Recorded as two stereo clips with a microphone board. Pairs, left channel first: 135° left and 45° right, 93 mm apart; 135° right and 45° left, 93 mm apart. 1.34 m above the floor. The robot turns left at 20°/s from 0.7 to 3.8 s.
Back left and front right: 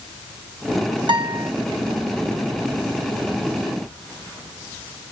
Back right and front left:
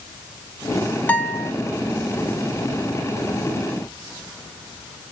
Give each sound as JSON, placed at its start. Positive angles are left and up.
{"t": 1.1, "sound": "a guitar", "azimuth_deg": -65, "distance_m": 0.7}